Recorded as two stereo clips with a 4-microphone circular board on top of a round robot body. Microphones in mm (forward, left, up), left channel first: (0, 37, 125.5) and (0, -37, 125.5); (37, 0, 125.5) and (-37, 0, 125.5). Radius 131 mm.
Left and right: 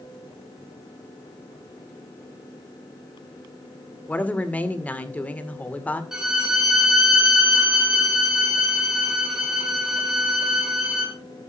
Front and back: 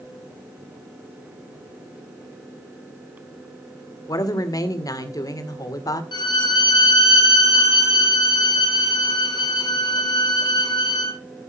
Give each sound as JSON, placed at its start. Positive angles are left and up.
{"t": 4.1, "sound": "a woman speaking", "azimuth_deg": 25, "distance_m": 2.0}
{"t": 6.1, "sound": "a violin", "azimuth_deg": -10, "distance_m": 3.5}